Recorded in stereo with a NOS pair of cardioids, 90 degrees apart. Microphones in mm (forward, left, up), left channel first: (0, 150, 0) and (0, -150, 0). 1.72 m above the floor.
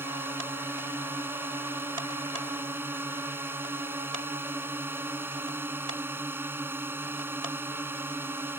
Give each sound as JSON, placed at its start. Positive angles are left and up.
{"t": 0.0, "sound": "a drone", "azimuth_deg": -5}